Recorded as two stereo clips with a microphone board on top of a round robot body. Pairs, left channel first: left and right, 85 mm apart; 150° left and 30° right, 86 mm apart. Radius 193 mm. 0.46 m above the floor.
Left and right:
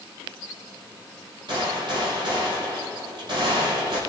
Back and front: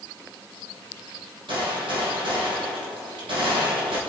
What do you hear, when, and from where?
1.5 s a gunshot: 55° right, 4.5 m